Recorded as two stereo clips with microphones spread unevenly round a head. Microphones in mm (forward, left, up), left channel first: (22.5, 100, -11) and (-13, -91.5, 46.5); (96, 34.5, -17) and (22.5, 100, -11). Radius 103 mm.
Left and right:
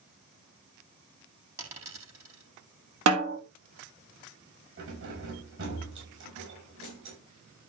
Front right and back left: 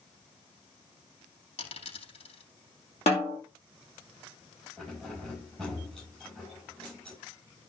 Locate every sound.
1.6 s a dropped coin: 25° right, 4.5 m
3.1 s a snare drum: 95° right, 2 m
4.8 s keys jangling: 130° right, 6 m